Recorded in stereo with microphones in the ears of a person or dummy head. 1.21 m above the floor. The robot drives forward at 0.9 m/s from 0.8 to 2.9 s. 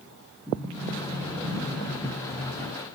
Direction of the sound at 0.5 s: 5° right (ahead or behind).